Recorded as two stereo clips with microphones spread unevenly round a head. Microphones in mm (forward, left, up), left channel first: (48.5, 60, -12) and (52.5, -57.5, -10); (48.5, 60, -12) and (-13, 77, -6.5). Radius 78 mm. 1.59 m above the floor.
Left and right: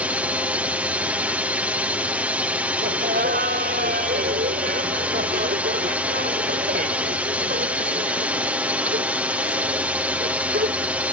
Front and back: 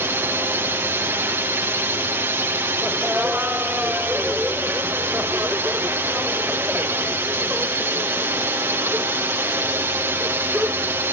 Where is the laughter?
115° right.